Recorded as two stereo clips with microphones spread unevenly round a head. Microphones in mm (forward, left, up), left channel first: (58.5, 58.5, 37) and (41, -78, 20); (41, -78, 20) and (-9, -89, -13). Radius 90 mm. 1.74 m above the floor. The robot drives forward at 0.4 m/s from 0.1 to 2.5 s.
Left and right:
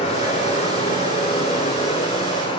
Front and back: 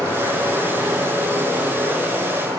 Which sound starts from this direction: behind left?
Running water, at 0.0 s.